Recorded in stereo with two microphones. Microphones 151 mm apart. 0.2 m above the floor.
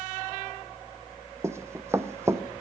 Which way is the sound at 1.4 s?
20° right (ahead or behind).